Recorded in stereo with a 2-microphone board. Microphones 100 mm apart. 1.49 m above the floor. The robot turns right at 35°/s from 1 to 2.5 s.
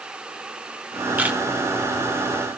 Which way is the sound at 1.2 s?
15° right (ahead or behind).